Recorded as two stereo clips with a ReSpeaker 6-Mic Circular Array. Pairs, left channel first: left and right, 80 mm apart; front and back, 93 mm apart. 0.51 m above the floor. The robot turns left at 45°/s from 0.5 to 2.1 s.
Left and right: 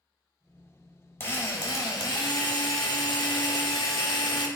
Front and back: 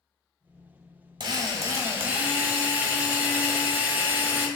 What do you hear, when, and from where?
1.2 s a drill: 150° left, 1.0 m; by 4.5 s 110° left, 1.0 m